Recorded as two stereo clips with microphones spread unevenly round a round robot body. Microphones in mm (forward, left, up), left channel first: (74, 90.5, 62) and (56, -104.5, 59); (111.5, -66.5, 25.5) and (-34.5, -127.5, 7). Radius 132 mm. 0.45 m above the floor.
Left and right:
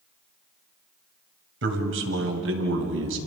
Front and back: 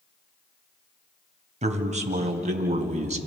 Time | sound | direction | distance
1.6 | a man speaking | 115° right | 2.5 m